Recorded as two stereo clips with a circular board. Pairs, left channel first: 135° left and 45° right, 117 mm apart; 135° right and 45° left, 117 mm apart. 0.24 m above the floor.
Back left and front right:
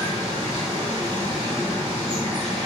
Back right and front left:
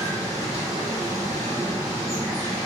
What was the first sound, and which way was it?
Running water, 10° right.